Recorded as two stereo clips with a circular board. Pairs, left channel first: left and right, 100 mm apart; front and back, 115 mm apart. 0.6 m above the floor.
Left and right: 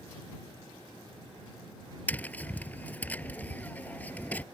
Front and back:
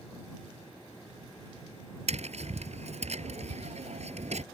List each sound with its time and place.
2.1 s tapping: 165° left